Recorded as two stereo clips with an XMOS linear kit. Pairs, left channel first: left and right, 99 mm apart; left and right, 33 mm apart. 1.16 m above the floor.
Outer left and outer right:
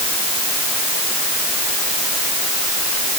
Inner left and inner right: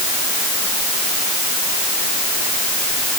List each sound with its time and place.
Only background noise.